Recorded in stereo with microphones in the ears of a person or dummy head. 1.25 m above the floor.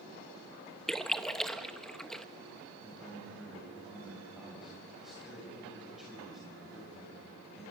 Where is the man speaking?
Centre (ahead or behind), 6 m.